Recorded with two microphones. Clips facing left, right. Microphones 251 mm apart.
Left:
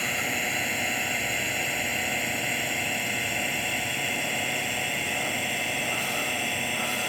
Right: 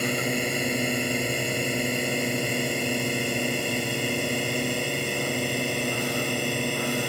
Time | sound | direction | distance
0.0 | a drone | 50° right (ahead or behind) | ?